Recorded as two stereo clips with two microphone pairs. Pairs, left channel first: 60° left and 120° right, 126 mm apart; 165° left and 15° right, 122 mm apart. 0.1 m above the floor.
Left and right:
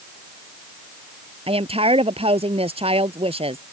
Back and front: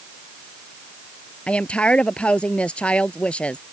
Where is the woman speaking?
115° right.